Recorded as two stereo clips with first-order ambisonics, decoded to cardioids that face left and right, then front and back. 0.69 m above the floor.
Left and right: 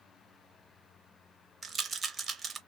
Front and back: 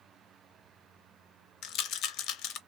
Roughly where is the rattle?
Ahead.